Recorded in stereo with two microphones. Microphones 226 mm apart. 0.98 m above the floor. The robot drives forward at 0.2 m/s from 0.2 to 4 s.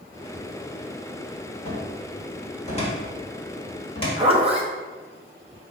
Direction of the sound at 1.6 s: 35° left (ahead or behind).